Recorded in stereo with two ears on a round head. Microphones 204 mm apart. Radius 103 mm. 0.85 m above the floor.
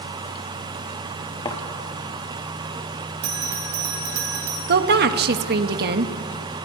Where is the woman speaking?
45° right (ahead or behind), 1.4 m.